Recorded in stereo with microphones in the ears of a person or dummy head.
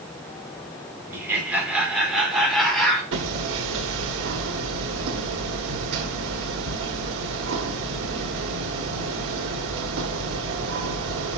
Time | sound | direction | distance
1.1 | laughter | 10° right (ahead or behind) | 4 m
3.1 | hammering | 70° right (ahead or behind) | 1.9 m